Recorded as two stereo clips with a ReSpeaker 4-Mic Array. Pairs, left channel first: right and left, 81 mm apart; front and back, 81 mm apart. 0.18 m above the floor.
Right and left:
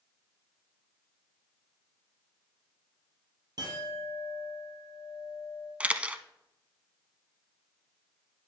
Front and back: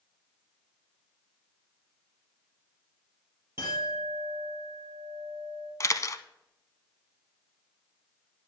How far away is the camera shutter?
About 0.5 m.